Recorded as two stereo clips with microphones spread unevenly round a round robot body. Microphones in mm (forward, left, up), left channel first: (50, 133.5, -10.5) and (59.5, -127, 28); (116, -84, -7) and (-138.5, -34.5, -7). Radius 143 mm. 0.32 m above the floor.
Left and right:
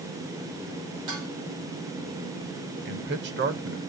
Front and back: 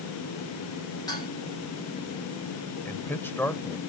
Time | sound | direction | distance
1.1 | dishes clattering | 85° right | 7.5 m
2.9 | a man speaking | 85° right | 1.0 m